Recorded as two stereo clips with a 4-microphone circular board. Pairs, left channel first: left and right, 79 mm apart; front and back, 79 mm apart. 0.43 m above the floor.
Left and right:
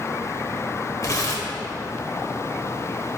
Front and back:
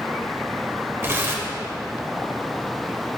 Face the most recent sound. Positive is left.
turn(degrees=125)